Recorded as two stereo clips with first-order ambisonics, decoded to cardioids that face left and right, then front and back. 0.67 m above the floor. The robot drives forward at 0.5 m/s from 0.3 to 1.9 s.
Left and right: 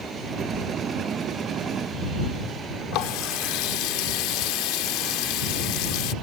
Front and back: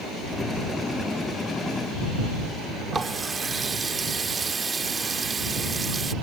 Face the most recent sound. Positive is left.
turn(degrees=105)